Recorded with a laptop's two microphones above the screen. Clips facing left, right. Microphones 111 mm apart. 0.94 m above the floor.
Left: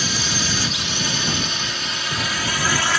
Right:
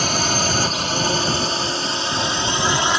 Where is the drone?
55° right (ahead or behind); by 3.0 s 20° right (ahead or behind).